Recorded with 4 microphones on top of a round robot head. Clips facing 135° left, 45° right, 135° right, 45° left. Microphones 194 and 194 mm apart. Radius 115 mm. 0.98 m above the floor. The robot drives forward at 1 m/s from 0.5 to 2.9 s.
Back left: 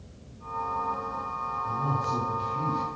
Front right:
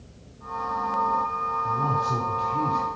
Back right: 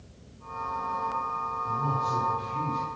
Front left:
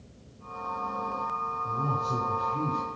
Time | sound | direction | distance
1.6 | a man speaking | 15° right | 4 m